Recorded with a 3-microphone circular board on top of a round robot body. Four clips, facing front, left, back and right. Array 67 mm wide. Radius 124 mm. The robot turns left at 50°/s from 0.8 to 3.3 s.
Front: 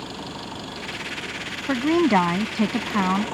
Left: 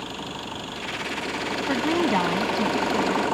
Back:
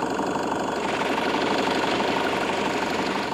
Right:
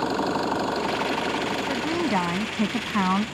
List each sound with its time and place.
0.0 s an engine running: 135° right; by 3.4 s 100° left
1.7 s a woman speaking: 25° left; by 3.3 s 55° right